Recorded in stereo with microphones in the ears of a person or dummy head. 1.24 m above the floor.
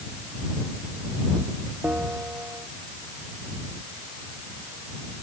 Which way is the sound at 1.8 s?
5° right (ahead or behind).